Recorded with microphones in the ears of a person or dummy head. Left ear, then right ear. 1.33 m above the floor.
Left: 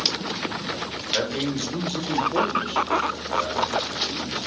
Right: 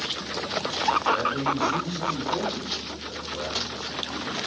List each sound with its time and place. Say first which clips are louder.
1.1 s a man speaking: right 1 dB; 70° left (ahead or behind), 1.0 m; by 4.4 s 25° right (ahead or behind), 1.4 m